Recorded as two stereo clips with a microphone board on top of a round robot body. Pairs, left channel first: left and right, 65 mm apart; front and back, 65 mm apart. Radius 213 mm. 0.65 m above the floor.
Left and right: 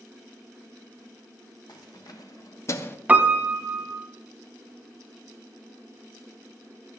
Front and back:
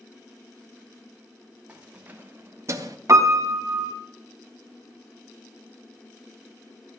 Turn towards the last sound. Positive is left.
turn(degrees=-155)